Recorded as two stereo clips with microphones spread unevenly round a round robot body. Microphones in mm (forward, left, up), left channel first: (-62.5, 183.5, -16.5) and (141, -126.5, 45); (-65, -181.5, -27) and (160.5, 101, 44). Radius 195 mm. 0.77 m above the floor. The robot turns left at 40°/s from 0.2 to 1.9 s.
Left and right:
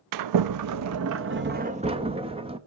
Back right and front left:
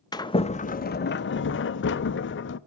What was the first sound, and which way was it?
A sliding door, 70° right.